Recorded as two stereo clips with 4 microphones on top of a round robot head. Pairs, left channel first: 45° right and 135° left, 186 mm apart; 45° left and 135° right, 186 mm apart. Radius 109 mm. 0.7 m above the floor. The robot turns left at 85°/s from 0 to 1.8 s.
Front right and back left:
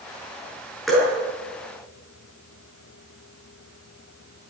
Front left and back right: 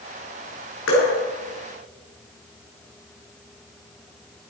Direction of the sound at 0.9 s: 45° left.